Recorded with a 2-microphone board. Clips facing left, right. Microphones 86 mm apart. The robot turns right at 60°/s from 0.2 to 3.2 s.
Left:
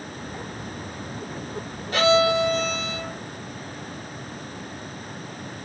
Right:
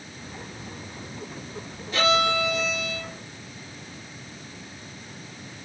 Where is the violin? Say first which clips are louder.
Left 4 dB; 95° left, 3.5 m; by 3.2 s 170° left, 3.5 m.